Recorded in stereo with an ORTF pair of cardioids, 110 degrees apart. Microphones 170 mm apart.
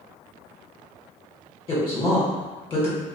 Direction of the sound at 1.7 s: 35° left.